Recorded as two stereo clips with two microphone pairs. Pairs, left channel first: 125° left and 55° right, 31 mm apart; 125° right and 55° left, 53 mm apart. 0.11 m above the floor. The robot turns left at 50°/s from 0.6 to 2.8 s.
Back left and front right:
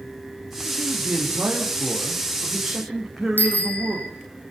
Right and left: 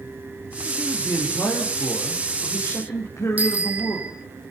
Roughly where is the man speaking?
Ahead right.